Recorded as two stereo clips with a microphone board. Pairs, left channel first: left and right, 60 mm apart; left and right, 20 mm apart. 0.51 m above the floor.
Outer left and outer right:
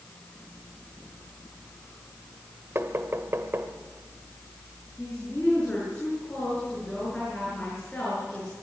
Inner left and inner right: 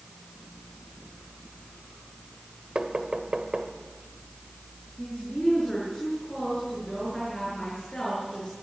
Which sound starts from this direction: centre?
A woman speaking, at 5.0 s.